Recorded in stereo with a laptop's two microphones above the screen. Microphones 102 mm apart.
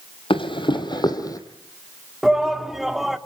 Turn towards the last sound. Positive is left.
turn(degrees=0)  # may be behind; listen again after turning